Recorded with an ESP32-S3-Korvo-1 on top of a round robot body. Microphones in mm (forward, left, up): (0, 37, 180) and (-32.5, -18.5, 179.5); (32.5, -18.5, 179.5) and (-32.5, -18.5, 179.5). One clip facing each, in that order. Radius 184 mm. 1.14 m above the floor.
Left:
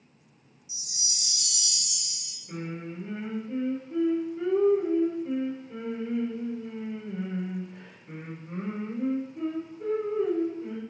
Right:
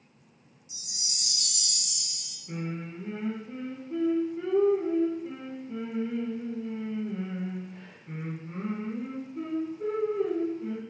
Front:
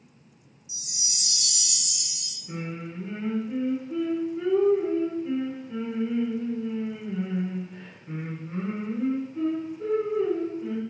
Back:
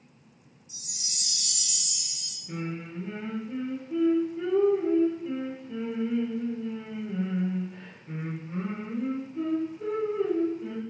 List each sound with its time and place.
0.7 s a chime: 80° right, 0.7 m
2.5 s singing: 60° right, 1.2 m